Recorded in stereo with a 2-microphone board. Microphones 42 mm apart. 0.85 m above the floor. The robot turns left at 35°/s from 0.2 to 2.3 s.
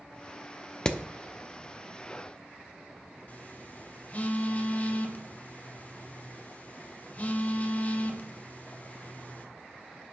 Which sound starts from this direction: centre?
Hammering, at 0.8 s.